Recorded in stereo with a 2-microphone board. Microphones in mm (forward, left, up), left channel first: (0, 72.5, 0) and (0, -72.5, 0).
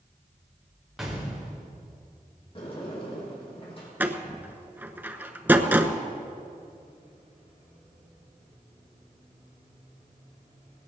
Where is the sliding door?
40° left (ahead or behind), 5.5 m.